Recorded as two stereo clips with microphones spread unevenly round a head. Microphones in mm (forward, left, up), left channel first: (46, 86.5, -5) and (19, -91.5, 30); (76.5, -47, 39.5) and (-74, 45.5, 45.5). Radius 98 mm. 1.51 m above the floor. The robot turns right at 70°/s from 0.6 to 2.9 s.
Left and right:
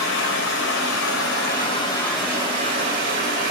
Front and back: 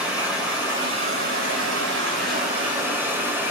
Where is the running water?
65° left, 3 m; by 3.5 s 130° right, 3 m.